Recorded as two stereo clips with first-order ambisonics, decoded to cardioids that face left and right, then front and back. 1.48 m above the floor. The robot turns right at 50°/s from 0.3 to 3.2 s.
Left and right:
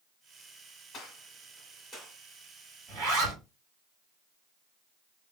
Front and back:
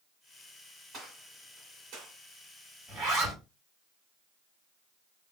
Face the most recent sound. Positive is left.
turn(degrees=-95)